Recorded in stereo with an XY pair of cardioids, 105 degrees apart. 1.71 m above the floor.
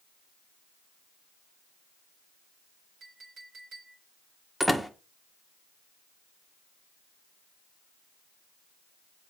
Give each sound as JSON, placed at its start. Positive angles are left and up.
{"t": 3.0, "sound": "a clink", "azimuth_deg": -55, "distance_m": 4.0}
{"t": 4.6, "sound": "a door slam", "azimuth_deg": -5, "distance_m": 1.4}